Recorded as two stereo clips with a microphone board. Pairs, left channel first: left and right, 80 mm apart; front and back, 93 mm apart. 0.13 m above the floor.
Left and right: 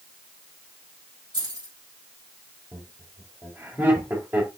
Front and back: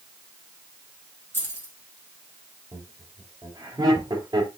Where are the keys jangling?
65° right, 3 m.